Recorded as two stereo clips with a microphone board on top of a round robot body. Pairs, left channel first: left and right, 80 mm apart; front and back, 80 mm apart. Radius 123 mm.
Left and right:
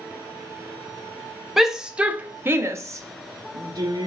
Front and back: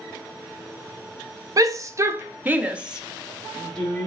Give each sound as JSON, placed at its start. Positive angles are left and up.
{"t": 1.6, "sound": "a shout", "azimuth_deg": -175, "distance_m": 1.0}